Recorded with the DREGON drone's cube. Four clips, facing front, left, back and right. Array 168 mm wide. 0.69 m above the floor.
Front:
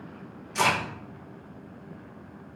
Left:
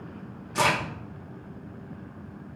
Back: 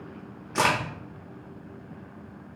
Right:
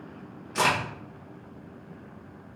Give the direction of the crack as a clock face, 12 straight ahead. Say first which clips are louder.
Left 1 dB, back 1 dB; 6 o'clock.